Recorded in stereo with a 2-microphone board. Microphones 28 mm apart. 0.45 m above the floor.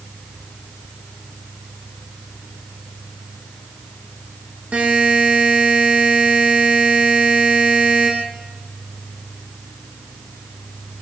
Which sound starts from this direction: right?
A buzzer, at 4.7 s.